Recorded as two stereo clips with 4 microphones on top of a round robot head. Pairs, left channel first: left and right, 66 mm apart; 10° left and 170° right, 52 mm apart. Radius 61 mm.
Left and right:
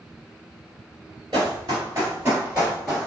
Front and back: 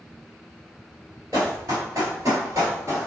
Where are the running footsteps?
120° right, 1.5 m; by 3.1 s 175° left, 1.4 m.